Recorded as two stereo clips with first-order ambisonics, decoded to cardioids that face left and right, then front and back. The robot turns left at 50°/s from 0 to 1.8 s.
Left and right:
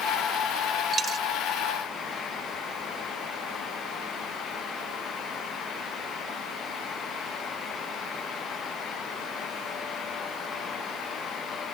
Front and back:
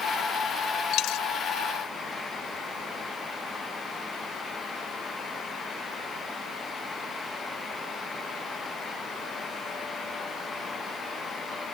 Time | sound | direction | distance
0.9 | a dropped coin | 20° right | ?